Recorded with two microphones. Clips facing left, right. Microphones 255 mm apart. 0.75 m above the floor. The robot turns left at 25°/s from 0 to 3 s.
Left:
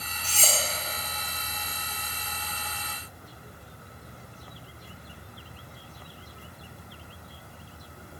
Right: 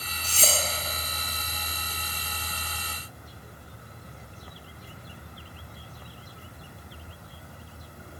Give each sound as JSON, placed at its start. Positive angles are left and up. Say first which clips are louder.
{"t": 0.2, "sound": "cutlery clinking", "louder": "right 2 dB", "side_deg": -40, "distance_m": 1.2}